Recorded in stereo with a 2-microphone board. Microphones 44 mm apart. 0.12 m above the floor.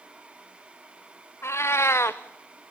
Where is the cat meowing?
70° left (ahead or behind), 1.1 m.